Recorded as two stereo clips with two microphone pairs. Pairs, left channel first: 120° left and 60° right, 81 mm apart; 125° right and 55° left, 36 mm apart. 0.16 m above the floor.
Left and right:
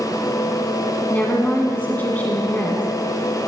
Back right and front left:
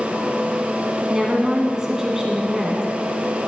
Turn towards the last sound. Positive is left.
turn(degrees=100)